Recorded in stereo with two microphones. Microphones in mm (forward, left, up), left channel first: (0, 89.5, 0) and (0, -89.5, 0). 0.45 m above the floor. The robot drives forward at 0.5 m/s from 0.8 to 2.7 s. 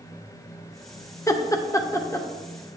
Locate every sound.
1.3 s laughter: 20° left (ahead or behind), 0.8 m; by 2.3 s 15° left (ahead or behind), 0.8 m